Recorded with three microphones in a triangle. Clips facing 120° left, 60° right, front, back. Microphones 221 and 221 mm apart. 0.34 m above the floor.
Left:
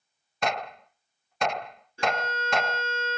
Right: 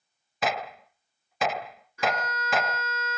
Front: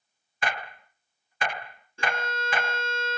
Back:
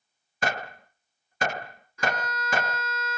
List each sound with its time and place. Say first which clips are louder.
0.4 s a gunshot: even, back 3 dB; 145° right
2.0 s a violin: left 1 dB, back 1 dB; 60° left